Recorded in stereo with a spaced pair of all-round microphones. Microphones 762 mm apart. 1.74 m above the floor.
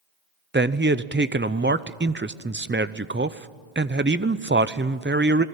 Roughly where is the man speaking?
Centre.